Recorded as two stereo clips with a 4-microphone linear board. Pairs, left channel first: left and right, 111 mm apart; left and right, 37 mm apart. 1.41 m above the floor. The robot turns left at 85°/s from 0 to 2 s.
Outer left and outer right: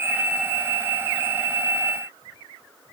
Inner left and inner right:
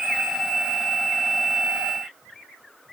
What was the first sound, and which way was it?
Only background noise.